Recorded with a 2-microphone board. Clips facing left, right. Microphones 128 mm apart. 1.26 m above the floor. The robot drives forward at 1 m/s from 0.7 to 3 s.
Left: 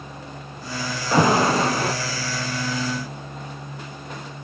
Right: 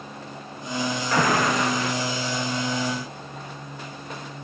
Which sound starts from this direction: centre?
An alarm, at 1.1 s.